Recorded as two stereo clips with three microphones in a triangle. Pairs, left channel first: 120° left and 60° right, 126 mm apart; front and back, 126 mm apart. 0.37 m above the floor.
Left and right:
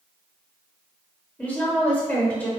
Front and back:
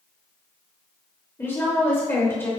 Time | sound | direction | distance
1.4 | a woman speaking | 50° left | 0.9 m